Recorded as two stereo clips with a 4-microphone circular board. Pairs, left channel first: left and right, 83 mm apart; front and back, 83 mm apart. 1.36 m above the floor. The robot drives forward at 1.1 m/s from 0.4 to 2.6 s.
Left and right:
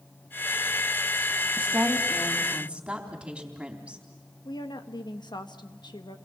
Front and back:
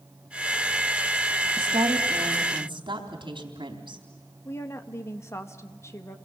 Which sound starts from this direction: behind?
A woman speaking, at 1.6 s.